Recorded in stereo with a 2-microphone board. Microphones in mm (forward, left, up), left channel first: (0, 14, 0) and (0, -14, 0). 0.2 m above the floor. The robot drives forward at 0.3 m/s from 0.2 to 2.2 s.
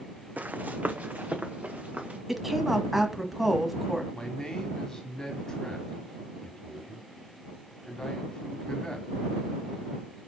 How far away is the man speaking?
About 1.3 m.